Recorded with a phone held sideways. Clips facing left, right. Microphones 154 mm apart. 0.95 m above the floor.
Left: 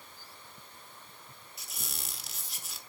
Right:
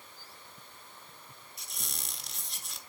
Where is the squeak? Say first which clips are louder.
Left 1 dB; 5° left (ahead or behind), 1.0 m.